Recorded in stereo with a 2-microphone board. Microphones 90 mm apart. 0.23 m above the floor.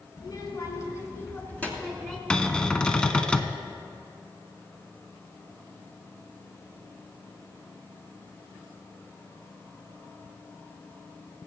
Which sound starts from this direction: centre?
A cupboard door, at 2.3 s.